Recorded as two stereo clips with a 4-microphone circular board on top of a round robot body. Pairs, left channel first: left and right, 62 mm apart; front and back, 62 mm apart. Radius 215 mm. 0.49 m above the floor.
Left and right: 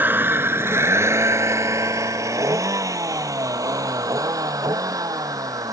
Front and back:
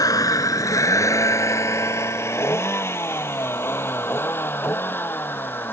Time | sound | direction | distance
0.0 | a vehicle | 30° right | ?